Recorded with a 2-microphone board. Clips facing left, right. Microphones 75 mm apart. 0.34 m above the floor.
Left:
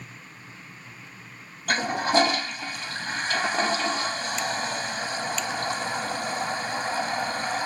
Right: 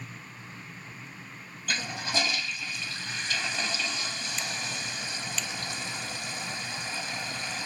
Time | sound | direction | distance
1.7 | a toilet flushing | 50° left (ahead or behind) | ?